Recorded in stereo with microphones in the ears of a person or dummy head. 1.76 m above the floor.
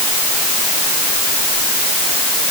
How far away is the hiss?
No hiss in this recording.